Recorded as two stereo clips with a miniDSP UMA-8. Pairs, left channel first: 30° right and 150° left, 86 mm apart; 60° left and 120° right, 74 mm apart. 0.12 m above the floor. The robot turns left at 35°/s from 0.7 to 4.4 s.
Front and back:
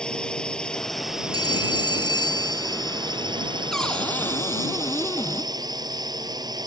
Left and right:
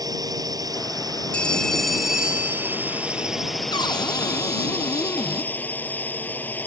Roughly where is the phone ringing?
Ahead.